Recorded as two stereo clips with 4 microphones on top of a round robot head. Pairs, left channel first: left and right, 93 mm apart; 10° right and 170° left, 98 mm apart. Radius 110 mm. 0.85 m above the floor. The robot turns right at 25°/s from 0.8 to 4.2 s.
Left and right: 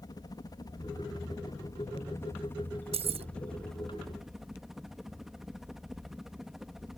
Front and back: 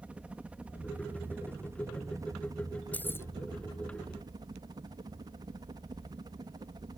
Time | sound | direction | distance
0.0 | a helicopter | 100° left | ?
2.9 | keys jangling | 85° right | ?